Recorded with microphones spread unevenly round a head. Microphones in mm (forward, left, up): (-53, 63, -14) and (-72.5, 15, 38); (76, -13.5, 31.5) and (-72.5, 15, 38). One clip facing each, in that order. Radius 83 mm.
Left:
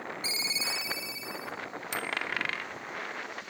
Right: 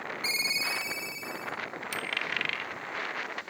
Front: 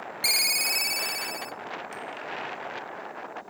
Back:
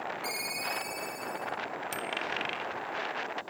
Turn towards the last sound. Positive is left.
turn(degrees=155)